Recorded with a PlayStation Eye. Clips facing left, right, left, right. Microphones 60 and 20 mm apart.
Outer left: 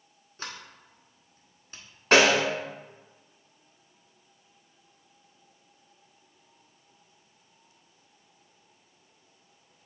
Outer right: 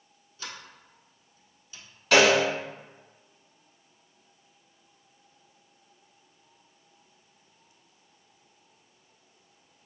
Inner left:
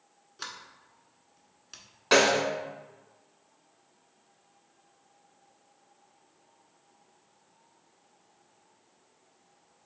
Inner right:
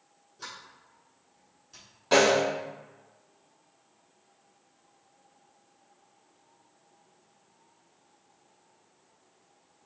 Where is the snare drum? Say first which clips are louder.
Even, inner right 1 dB; 40° left (ahead or behind), 1.3 m.